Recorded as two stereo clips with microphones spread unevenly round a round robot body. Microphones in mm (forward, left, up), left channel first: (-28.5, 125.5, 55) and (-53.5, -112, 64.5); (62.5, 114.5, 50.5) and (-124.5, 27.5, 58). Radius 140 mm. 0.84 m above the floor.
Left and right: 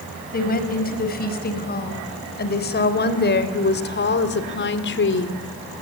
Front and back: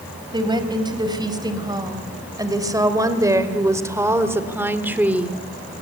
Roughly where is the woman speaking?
Behind left.